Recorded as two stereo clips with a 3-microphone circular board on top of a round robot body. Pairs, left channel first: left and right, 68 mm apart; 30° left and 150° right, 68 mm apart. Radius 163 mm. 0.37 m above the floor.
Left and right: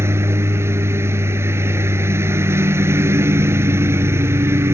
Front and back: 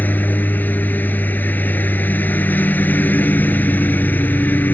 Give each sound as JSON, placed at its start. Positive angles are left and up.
{"t": 0.0, "sound": "a lawn mower", "azimuth_deg": -35}